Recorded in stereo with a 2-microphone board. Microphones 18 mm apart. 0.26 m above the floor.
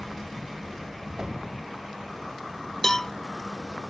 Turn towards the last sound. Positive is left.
turn(degrees=30)  # may be behind; listen again after turning